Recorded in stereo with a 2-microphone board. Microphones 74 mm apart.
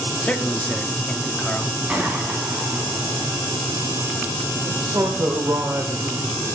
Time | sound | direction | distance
0.2 | a man speaking | 15° left (ahead or behind) | 0.8 m
1.9 | a gunshot | 15° right (ahead or behind) | 3 m
4.6 | a man speaking | 45° right (ahead or behind) | 1.6 m